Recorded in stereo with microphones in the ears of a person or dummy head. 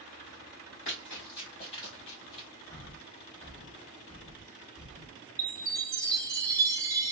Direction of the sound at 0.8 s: 30° left (ahead or behind).